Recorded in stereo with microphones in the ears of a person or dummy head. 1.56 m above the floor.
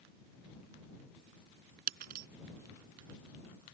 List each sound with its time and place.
1.9 s breaking glass: 50° right (ahead or behind)